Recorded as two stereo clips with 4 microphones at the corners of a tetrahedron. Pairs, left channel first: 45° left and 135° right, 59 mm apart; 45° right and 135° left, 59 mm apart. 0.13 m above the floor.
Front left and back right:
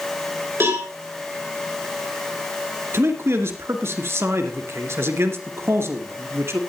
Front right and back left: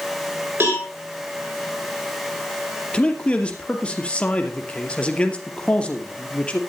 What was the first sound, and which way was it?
A cowbell, 175° right.